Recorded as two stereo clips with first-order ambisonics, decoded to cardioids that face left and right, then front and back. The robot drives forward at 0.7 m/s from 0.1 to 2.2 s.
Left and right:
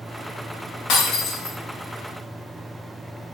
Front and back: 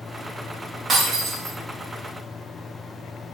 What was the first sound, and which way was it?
Breaking glass, 120° left.